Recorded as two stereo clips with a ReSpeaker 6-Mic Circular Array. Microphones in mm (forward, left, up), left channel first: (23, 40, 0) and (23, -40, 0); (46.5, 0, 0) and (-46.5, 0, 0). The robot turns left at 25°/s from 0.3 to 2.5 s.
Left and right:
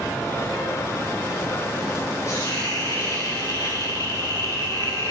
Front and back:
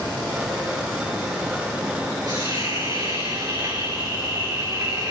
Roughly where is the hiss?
Behind left.